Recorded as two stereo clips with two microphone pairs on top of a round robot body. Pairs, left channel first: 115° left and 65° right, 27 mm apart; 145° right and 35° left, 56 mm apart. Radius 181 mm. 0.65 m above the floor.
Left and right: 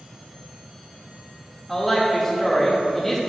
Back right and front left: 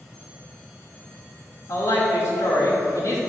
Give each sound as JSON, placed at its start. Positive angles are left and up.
{"t": 1.7, "sound": "a woman speaking", "azimuth_deg": -165, "distance_m": 2.0}